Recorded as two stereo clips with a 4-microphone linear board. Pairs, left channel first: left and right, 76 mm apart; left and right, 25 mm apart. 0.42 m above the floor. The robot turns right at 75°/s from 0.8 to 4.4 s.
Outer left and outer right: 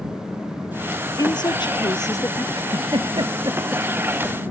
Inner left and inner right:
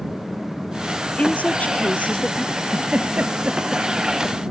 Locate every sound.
1.2 s a woman speaking: 55° left; by 2.5 s 150° left
2.5 s a giggle: 60° right (ahead or behind); by 4.4 s 15° left (ahead or behind)